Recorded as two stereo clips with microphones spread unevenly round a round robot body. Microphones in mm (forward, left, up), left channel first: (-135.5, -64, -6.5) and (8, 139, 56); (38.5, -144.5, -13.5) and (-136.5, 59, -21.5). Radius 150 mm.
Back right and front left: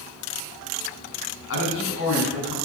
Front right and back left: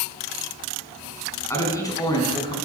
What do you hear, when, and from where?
1.5 s a man speaking: 130° right, 4 m; by 2.5 s 120° right, 3.5 m